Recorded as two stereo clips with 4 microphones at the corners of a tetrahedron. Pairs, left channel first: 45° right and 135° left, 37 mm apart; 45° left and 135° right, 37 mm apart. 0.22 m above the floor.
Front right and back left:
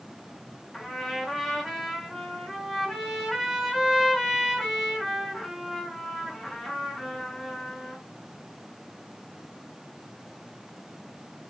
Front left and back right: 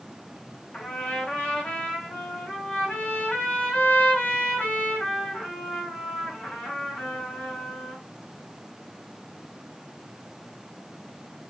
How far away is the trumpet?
About 1.7 m.